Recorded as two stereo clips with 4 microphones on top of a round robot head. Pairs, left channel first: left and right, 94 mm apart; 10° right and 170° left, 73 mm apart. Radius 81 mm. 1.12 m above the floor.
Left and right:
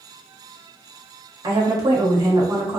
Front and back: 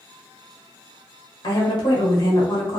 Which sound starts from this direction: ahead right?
A woman speaking, at 1.4 s.